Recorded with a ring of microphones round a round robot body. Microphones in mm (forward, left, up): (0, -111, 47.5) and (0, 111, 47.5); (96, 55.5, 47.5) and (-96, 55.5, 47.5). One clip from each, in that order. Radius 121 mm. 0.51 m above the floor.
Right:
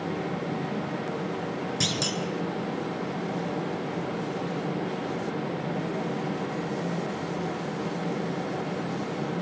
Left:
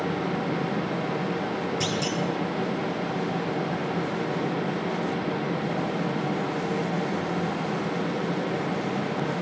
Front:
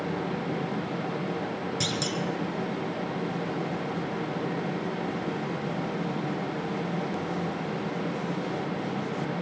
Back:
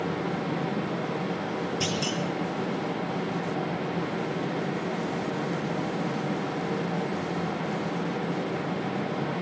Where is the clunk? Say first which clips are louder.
Right 3 dB, front 1 dB; 35° right, 3.5 m.